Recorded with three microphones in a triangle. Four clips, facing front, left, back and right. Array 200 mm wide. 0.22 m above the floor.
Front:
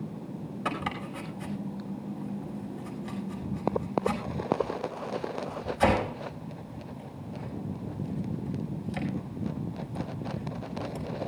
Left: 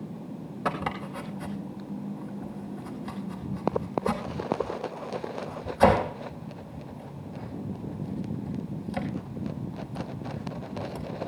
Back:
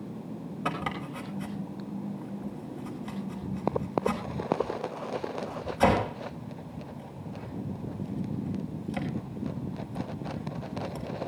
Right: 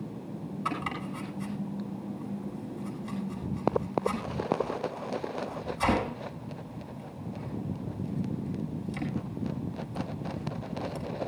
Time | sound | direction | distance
0.7 | chopping | 115° left | 4.5 m